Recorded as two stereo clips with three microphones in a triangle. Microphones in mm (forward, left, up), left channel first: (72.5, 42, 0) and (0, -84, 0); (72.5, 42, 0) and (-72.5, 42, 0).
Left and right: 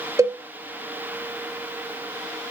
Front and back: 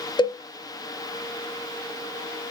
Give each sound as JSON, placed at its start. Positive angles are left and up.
{"t": 0.2, "sound": "a cowbell", "azimuth_deg": -55, "distance_m": 1.0}